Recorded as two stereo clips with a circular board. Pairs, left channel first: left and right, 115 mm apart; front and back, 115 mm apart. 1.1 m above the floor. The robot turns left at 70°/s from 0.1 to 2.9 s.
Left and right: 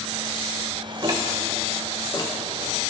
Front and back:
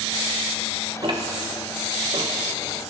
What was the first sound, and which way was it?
Ticking, 135° right.